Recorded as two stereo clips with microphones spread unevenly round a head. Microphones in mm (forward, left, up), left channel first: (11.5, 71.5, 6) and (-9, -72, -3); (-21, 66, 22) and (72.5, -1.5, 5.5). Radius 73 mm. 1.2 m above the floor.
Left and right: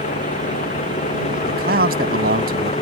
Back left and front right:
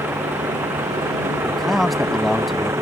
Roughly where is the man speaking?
Behind right.